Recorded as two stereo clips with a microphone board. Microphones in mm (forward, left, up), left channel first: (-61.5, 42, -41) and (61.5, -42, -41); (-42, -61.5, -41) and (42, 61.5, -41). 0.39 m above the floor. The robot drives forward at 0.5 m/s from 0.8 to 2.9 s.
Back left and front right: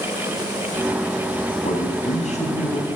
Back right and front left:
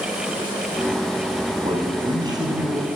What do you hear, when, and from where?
1.6 s a man speaking: 110° left, 3 m; by 2.9 s 120° left, 3 m